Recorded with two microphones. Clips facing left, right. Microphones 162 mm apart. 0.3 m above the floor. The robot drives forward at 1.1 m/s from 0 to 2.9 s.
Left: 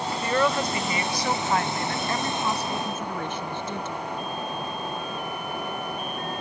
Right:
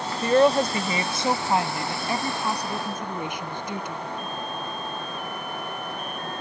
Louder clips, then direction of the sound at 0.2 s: Right 7 dB; 35° right (ahead or behind).